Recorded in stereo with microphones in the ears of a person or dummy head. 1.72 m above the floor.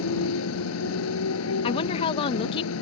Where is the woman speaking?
30° left (ahead or behind).